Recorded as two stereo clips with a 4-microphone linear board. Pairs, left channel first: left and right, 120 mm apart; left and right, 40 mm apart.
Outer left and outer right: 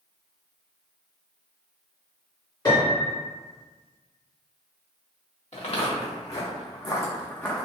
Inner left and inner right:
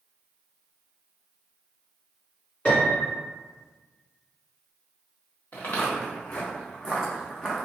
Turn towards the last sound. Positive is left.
turn(degrees=5)  # may be behind; listen again after turning